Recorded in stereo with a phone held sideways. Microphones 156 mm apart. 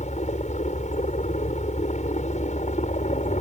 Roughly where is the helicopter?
Left.